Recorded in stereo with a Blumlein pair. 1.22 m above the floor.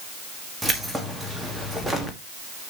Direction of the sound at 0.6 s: 5° right.